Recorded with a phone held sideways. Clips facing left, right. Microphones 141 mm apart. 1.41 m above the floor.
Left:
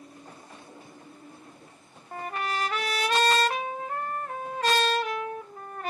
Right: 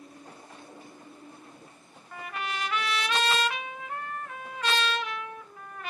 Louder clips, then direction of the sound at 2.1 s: Left 4 dB; 40° left (ahead or behind).